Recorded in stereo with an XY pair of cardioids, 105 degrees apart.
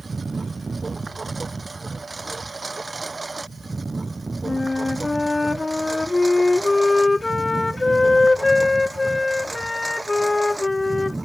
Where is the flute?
20° left.